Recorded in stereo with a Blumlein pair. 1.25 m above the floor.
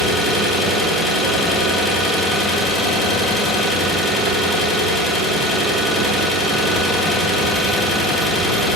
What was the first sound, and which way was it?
An engine running, 10° left.